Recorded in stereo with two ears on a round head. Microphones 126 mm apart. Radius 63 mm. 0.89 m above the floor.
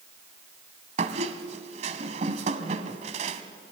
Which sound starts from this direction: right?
A squeak, at 1.0 s.